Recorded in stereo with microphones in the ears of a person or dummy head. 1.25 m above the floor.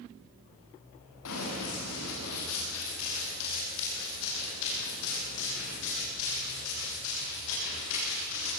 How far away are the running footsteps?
About 8.5 m.